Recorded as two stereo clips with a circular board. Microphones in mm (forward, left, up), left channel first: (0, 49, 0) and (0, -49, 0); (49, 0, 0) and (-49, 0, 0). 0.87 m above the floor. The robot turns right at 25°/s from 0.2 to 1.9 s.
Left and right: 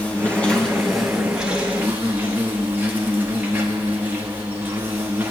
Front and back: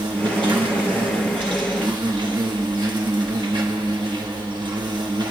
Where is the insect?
160° left, 1.3 m; by 5.3 s 155° right, 1.3 m.